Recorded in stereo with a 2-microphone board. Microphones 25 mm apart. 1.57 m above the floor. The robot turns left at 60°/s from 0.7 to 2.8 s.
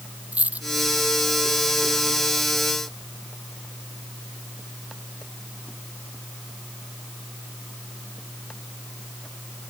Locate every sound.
0.3 s a dropped coin: 80° right